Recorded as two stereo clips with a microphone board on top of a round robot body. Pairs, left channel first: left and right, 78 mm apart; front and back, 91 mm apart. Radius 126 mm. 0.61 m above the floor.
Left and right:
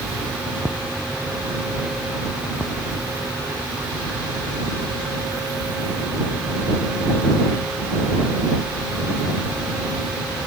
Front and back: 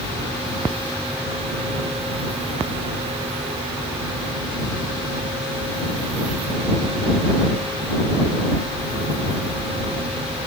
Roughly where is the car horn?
I don't hear a car horn.